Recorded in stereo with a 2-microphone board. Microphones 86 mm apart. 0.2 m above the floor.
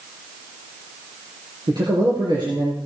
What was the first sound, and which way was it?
A man speaking, 55° right (ahead or behind).